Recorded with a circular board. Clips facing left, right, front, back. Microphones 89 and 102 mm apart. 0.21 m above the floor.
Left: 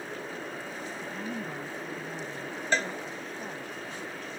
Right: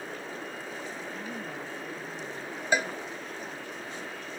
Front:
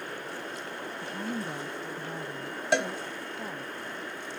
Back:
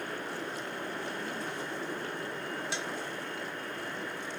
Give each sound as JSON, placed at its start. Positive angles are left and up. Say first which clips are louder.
{"t": 1.0, "sound": "a woman speaking", "louder": "left 2 dB, front 2 dB", "azimuth_deg": 10}
{"t": 2.7, "sound": "a cowbell", "louder": "right 1 dB, front 11 dB", "azimuth_deg": -10}